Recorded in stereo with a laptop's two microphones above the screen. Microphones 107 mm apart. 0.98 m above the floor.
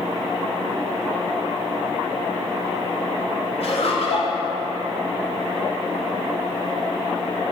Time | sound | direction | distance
3.6 | laughter | 70° left (ahead or behind) | 3.5 m